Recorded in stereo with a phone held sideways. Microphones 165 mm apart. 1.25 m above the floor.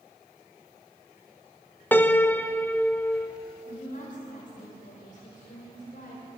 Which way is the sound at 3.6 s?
50° left (ahead or behind).